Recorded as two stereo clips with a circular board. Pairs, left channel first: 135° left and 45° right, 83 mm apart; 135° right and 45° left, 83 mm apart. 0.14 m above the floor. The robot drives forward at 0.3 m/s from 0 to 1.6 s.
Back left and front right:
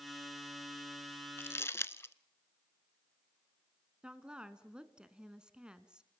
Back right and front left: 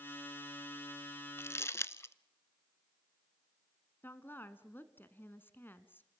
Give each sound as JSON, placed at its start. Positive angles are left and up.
{"t": 1.4, "sound": "crumpling", "azimuth_deg": -175, "distance_m": 0.6}
{"t": 4.0, "sound": "a woman speaking", "azimuth_deg": -110, "distance_m": 1.2}